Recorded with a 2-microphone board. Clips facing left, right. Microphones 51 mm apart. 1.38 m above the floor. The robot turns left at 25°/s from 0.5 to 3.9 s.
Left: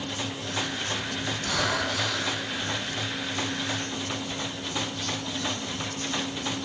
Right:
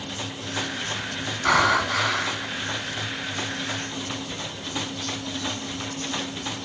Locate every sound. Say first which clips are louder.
1.4 s breathing: right 9 dB; 75° right (ahead or behind), 3.5 m; by 2.5 s 60° right (ahead or behind), 3.5 m